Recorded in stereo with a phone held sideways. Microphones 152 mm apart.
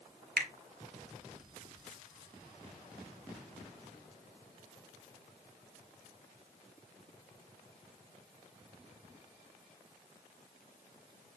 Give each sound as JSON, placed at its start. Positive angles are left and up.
{"t": 0.4, "sound": "a finger snap", "side_deg": -75, "distance_m": 0.6}